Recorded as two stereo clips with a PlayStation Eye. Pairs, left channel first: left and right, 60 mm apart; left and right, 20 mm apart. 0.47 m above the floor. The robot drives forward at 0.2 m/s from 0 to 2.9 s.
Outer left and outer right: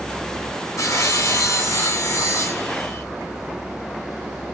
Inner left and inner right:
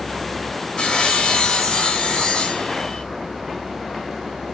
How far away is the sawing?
About 2.5 m.